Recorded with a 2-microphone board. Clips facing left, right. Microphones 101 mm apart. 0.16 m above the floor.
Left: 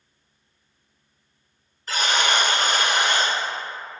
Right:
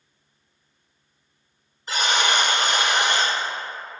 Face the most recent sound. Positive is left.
turn(degrees=-20)  # may be behind; listen again after turning